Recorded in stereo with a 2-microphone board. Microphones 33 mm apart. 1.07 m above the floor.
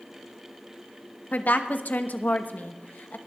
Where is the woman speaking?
65° left (ahead or behind), 1.0 m.